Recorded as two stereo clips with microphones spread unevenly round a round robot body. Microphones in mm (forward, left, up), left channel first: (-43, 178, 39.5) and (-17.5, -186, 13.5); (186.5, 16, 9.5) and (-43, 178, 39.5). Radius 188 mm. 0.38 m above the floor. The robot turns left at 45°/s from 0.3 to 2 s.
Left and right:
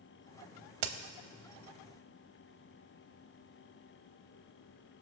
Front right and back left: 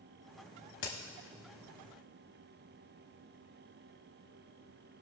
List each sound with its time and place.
0.8 s a crack: 90° right, 0.8 m; by 0.9 s 95° right, 0.8 m